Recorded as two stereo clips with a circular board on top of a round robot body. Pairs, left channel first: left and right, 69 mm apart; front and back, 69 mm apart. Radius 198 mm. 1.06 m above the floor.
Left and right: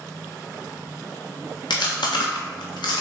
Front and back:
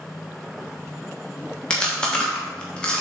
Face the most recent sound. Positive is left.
turn(degrees=75)